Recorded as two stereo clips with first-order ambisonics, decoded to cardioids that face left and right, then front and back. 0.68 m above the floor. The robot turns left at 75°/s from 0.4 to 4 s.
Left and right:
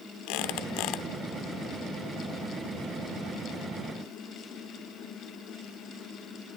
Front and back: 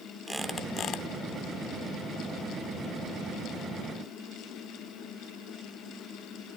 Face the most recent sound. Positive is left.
turn(degrees=-175)